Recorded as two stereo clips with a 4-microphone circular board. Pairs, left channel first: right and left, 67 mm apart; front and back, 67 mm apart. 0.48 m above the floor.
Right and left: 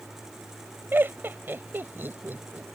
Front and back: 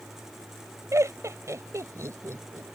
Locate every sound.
0.9 s laughter: 145° left